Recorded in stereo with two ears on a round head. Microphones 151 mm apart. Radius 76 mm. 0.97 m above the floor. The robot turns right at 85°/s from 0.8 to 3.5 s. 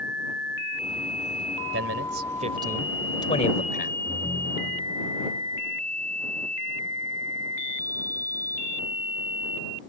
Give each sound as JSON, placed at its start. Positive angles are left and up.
{"t": 1.7, "sound": "a man speaking", "azimuth_deg": -100}
{"t": 4.1, "sound": "a ringtone", "side_deg": 15}